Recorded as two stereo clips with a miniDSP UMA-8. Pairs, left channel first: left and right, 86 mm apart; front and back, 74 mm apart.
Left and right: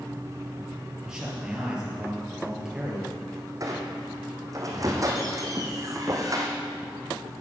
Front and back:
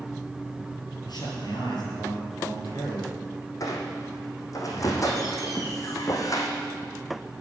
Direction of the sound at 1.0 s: 10° right.